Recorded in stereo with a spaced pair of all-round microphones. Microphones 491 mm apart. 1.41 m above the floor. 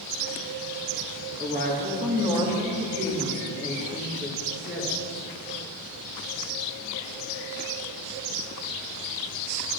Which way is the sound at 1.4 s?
20° right (ahead or behind).